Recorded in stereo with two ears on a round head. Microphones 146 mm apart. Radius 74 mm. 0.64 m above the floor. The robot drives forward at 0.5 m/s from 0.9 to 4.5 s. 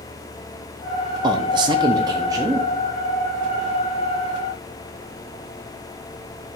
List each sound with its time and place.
1.2 s a man speaking: 25° right (ahead or behind), 0.6 m; by 2.7 s 20° right (ahead or behind), 0.8 m